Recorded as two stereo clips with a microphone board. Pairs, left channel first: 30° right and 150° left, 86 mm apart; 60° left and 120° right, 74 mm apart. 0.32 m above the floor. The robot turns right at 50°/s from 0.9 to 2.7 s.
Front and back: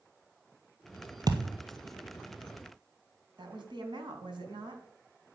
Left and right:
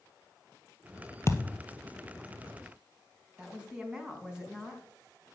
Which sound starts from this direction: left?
A thud, at 1.3 s.